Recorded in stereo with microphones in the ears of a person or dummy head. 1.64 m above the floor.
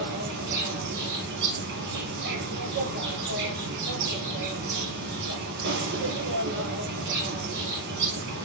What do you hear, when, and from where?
0.0 s an insect: 55° right (ahead or behind), 2 m